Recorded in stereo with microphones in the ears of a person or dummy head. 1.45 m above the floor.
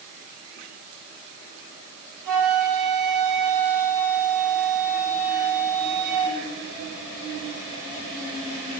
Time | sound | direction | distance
2.2 | a flute | 60° right (ahead or behind) | 6 m